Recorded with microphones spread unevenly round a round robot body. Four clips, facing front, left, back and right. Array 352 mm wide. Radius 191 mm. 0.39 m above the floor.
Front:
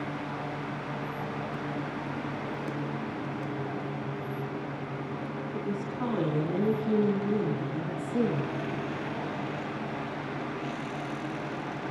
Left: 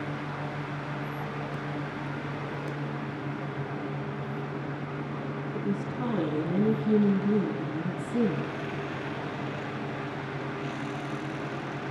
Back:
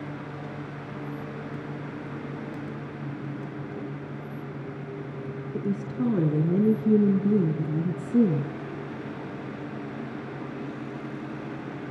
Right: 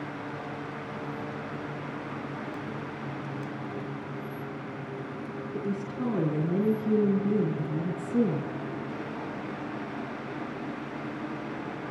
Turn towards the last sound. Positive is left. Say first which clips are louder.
# even, back 6 dB
turn(degrees=-175)